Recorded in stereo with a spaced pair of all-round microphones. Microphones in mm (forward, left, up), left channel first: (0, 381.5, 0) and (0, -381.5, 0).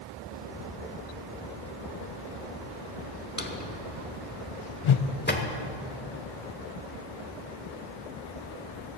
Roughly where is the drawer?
Centre.